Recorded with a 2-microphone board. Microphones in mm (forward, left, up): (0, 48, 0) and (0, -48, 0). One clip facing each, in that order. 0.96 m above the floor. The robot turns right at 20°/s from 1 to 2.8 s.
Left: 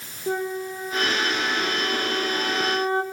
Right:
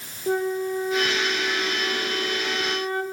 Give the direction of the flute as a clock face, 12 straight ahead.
12 o'clock.